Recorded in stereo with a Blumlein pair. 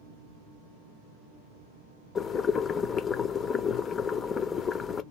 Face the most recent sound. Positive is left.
turn(degrees=20)